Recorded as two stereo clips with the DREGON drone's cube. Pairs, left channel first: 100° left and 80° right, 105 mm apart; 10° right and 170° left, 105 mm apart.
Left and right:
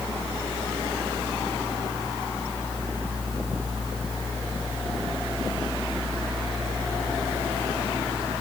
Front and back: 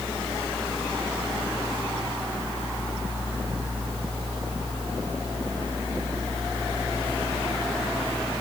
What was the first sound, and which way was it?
Only background noise.